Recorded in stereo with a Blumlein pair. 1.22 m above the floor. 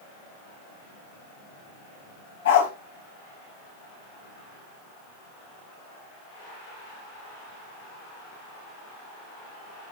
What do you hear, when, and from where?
2.5 s a dog barking: 55° left, 4 m